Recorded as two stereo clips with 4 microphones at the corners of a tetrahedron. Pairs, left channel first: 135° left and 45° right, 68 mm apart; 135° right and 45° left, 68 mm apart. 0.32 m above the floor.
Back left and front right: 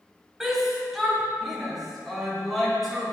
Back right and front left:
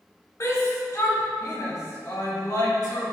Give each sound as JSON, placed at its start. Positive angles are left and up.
{"t": 0.4, "sound": "a shout", "azimuth_deg": -130, "distance_m": 1.7}